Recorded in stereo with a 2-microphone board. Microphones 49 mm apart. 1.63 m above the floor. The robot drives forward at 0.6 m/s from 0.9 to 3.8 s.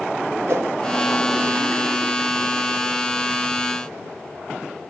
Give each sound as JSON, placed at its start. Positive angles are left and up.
{"t": 0.5, "sound": "a whoosh", "side_deg": -65, "distance_m": 0.7}